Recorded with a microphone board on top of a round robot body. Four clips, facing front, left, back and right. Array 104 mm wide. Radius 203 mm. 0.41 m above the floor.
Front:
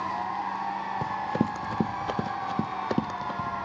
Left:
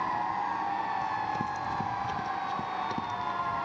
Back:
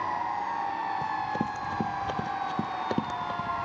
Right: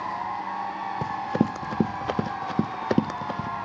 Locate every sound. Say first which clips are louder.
1.0 s running footsteps: right 5 dB, front 2 dB; 70° right; by 3.5 s 85° right